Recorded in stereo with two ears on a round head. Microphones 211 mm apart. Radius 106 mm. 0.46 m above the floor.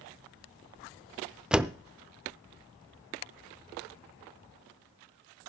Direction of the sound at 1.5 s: 5° right (ahead or behind).